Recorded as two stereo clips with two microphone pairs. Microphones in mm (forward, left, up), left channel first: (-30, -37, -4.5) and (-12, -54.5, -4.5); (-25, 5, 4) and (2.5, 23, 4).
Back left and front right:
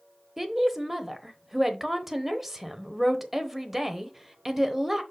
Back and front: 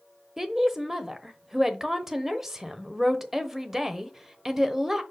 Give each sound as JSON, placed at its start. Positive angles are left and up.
{"t": 0.4, "sound": "a woman speaking", "azimuth_deg": -15, "distance_m": 0.9}